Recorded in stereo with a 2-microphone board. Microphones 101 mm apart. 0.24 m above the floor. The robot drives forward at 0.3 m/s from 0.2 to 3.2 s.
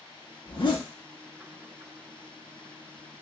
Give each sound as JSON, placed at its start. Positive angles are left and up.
{"t": 0.5, "sound": "a zipper", "side_deg": 55, "distance_m": 0.9}